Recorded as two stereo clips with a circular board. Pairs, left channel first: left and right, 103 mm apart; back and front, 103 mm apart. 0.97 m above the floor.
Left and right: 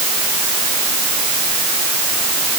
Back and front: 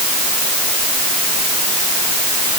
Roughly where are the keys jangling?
No keys jangling in this recording.